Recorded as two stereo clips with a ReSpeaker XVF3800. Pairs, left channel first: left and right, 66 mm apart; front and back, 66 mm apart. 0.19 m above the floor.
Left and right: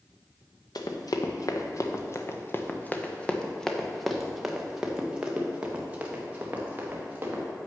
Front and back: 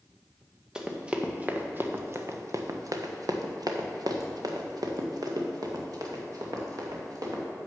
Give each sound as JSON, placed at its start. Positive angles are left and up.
{"t": 0.8, "sound": "running footsteps", "azimuth_deg": 105, "distance_m": 1.4}